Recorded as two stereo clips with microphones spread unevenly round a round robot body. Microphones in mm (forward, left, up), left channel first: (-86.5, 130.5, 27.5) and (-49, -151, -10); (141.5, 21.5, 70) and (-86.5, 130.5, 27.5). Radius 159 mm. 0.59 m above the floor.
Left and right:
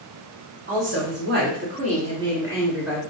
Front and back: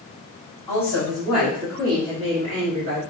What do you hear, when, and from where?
0.7 s a woman speaking: 110° right, 2 m; by 3.0 s 165° right, 1.9 m